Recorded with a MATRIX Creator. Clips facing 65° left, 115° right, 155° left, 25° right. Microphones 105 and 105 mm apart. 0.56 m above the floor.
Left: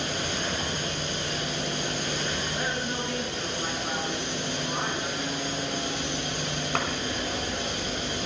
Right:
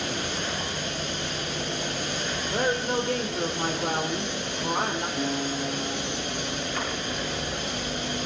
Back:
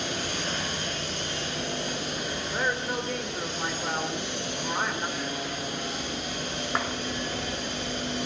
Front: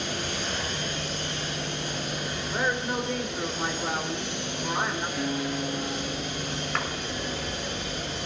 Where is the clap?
85° left, 4.5 m.